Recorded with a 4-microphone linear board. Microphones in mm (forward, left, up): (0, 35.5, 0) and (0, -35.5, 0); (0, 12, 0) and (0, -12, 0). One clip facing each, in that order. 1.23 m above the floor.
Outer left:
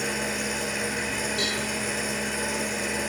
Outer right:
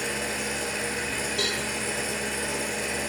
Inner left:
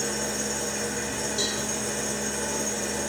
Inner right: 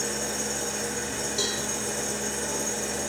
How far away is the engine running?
About 1.0 m.